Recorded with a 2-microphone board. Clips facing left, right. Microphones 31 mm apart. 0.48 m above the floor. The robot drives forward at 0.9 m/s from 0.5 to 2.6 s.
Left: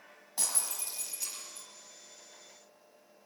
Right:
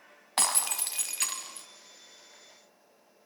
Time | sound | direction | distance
0.4 | breaking glass | 70° right (ahead or behind) | 1.5 m